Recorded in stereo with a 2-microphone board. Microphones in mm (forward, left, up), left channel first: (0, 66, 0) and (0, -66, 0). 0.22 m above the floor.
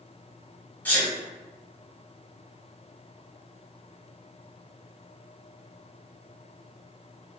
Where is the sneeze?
15° left (ahead or behind), 1.3 m.